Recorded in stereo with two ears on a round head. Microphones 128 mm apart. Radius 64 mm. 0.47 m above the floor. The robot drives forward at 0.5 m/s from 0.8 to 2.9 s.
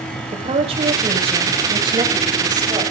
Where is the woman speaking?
40° right (ahead or behind), 1.7 m; by 2.8 s 30° right (ahead or behind), 2.5 m.